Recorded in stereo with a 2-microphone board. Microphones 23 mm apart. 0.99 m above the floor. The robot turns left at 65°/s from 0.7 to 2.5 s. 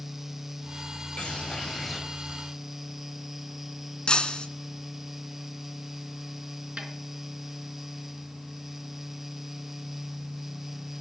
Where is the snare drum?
60° right (ahead or behind), 3.5 m.